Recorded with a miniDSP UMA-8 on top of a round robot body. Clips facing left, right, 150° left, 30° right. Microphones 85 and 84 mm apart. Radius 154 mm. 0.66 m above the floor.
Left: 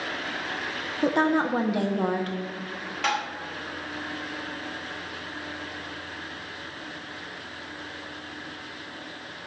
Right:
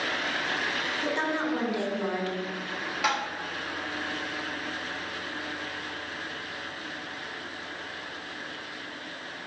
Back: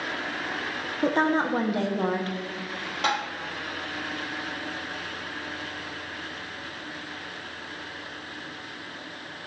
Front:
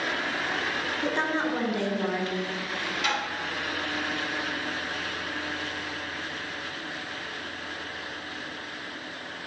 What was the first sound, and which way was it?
A woman speaking, 110° left.